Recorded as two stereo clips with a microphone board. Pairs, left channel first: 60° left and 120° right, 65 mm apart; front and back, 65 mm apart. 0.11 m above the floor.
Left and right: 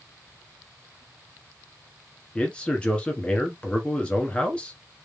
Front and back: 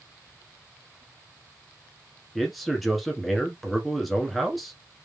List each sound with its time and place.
2.4 s a man speaking: 85° left, 1.4 m